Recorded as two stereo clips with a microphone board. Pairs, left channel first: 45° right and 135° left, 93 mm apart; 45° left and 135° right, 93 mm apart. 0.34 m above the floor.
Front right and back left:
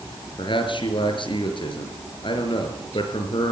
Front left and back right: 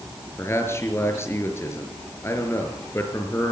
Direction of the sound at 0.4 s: 20° right.